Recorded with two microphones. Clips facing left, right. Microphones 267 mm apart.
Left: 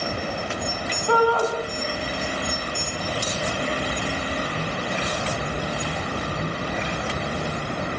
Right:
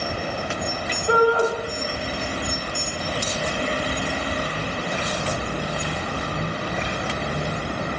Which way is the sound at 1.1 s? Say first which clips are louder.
Right 2 dB; 20° right (ahead or behind).